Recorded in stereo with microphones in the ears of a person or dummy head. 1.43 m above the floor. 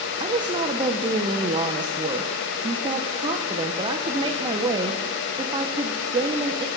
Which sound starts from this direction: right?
A woman speaking, at 0.2 s.